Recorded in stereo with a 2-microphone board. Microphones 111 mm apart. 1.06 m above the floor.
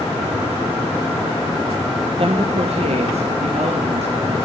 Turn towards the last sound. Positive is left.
turn(degrees=-70)  # may be behind; listen again after turning